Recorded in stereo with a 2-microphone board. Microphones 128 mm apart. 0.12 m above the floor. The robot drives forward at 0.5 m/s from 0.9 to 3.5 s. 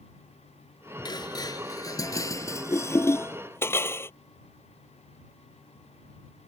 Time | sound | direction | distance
1.1 | dishes clattering | 35° left (ahead or behind) | ?